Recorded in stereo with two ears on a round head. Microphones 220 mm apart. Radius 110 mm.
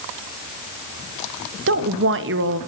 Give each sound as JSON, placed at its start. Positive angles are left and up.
{"t": 1.7, "sound": "a woman speaking", "side_deg": -50, "distance_m": 1.2}